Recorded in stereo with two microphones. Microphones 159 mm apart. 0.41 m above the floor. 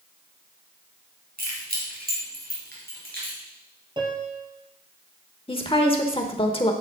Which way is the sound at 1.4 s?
75° right (ahead or behind).